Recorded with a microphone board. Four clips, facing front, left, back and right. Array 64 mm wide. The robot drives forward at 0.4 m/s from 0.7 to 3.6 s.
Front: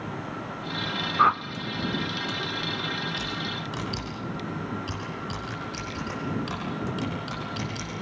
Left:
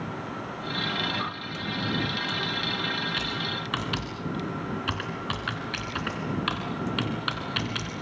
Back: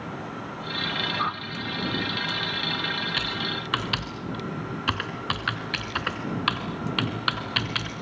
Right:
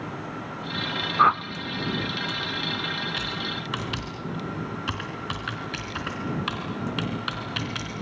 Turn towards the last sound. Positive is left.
turn(degrees=180)